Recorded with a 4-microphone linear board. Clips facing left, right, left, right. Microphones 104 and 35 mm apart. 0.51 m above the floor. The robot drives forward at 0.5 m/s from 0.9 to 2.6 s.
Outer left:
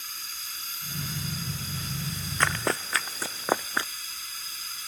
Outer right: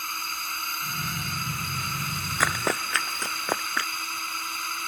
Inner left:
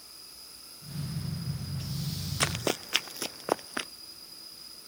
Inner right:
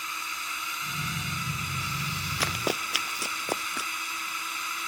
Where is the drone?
60° right (ahead or behind).